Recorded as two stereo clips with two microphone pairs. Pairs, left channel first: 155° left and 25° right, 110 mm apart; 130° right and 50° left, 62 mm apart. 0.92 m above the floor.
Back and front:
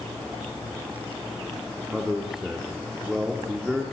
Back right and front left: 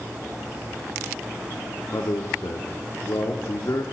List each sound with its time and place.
1.9 s a man speaking: 110° right, 2 m